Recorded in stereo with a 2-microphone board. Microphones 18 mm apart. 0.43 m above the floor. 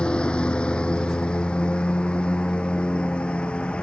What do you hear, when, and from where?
0.0 s a lawn mower: 60° left (ahead or behind); by 3.8 s 70° left (ahead or behind)